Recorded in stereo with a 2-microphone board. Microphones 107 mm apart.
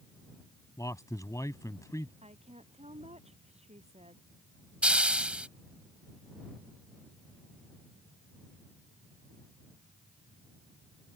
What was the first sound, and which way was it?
A man speaking, 30° left (ahead or behind).